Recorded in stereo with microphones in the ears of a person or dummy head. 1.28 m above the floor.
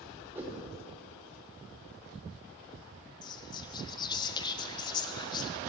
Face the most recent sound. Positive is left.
turn(degrees=20)  # may be behind; listen again after turning